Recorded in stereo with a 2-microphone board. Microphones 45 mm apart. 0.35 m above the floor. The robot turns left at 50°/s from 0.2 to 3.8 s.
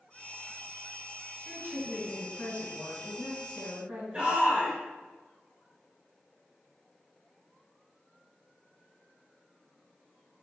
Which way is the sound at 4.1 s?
30° right (ahead or behind).